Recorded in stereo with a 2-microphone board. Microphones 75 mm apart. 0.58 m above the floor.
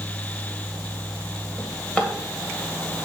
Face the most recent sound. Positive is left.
turn(degrees=20)  # may be behind; listen again after turning